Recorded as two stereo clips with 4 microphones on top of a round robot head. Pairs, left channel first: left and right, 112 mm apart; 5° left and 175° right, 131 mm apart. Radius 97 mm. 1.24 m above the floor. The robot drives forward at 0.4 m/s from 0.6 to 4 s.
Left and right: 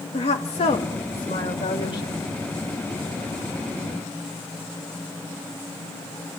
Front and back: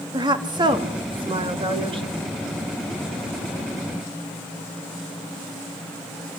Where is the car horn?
No car horn in this recording.